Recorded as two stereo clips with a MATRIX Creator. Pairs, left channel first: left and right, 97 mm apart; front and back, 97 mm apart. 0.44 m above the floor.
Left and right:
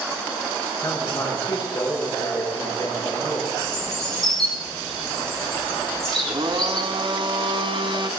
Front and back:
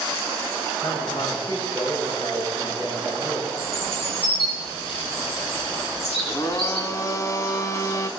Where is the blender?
55° right, 0.9 m.